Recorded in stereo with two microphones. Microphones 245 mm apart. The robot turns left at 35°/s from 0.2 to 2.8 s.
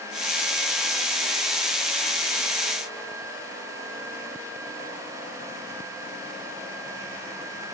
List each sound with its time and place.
Only background noise.